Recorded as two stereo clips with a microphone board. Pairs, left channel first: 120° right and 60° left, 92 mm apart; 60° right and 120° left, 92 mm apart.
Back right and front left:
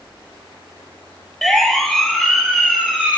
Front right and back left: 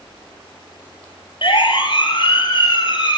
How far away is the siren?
About 9.5 m.